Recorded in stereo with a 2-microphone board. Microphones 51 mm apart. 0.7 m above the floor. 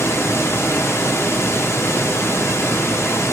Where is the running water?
55° left (ahead or behind), 1.4 m.